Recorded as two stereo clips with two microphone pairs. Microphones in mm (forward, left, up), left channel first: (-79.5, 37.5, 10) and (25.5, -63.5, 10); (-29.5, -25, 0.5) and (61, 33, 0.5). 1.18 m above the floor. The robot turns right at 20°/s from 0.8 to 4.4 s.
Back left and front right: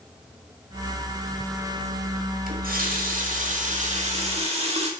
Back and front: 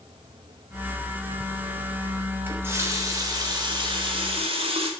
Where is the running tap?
40° right, 1.7 m; by 4.9 s straight ahead, 1.7 m.